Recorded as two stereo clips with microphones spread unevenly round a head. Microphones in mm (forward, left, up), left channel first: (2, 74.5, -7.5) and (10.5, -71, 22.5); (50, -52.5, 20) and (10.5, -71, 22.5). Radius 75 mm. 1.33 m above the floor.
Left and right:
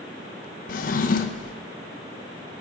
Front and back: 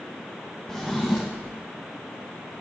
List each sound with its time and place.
0.7 s a drawer: 105° left, 0.5 m